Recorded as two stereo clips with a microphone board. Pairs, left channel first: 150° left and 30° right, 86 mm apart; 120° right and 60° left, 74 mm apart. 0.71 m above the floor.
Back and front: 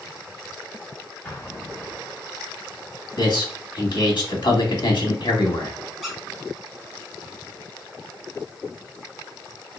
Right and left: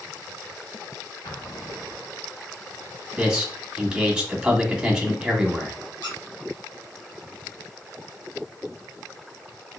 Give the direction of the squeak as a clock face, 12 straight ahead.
4 o'clock.